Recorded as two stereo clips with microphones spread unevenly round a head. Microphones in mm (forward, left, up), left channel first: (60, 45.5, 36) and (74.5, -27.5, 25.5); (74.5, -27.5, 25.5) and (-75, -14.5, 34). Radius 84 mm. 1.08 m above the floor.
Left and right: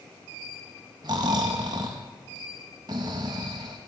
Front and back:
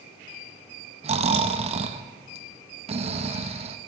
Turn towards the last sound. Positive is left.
turn(degrees=-135)